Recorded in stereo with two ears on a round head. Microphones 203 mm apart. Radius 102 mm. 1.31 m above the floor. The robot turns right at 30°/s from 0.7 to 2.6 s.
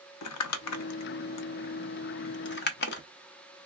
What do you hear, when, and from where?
0.2 s crumpling: 75° left (ahead or behind), 0.6 m; by 3.0 s 50° left (ahead or behind), 0.6 m